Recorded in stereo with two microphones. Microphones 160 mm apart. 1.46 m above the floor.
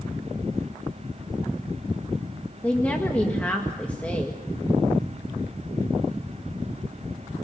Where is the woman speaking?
10° left (ahead or behind), 1.7 m.